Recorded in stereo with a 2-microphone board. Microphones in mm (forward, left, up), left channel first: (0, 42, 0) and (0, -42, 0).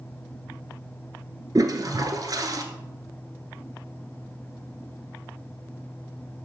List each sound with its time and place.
1.6 s a toilet flushing: 45° right (ahead or behind), 1.0 m